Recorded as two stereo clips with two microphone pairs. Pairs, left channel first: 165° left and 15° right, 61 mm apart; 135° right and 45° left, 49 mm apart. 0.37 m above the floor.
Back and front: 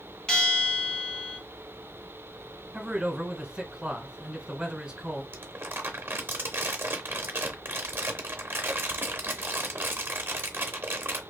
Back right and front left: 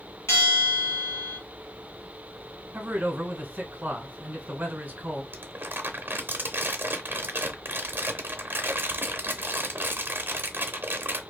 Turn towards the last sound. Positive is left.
turn(degrees=25)